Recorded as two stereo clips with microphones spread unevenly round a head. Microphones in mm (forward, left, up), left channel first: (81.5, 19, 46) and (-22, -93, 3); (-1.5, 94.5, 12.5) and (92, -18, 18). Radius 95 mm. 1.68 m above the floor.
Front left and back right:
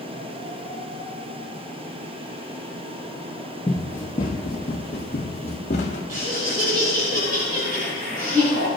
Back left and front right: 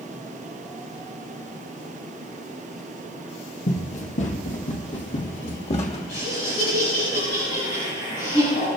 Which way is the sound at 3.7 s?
110° left.